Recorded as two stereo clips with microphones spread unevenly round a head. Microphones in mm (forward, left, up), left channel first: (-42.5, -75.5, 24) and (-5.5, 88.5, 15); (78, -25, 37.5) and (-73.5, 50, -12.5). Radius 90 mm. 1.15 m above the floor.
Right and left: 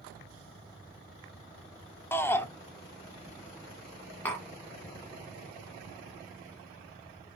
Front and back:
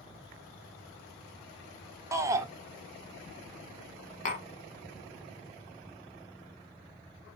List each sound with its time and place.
2.1 s a shout: 175° right, 0.8 m
4.2 s tapping: 25° right, 1.6 m